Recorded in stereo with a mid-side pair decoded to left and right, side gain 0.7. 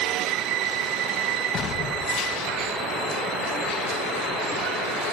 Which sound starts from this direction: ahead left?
An explosion, at 1.5 s.